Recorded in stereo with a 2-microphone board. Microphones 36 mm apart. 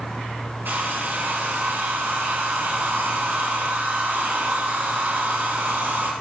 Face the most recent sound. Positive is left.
turn(degrees=-70)  # may be behind; listen again after turning